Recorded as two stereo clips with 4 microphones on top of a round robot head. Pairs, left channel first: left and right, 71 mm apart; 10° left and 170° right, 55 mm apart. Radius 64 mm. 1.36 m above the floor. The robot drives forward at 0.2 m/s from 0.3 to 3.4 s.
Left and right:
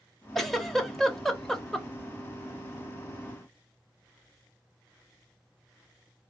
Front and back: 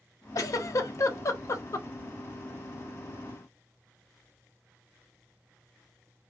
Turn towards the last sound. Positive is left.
turn(degrees=10)